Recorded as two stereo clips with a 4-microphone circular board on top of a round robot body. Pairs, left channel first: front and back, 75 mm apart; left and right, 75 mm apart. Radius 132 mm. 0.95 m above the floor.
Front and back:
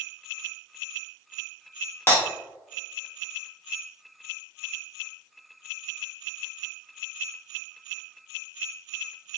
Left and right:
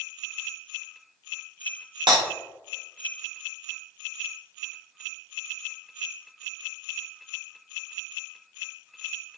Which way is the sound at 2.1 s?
65° right.